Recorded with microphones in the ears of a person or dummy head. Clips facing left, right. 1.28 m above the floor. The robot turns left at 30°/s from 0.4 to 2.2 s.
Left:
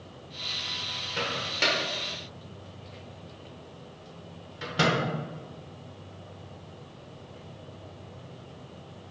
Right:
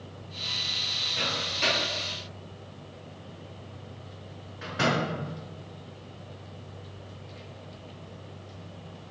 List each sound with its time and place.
1.2 s a microwave: 80° left, 0.9 m; by 5.0 s 50° left (ahead or behind), 0.9 m